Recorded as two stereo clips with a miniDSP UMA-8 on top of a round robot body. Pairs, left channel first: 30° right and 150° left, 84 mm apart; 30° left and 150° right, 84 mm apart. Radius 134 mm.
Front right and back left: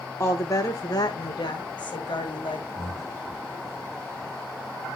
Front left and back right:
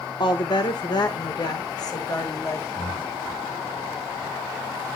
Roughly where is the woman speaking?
Ahead left.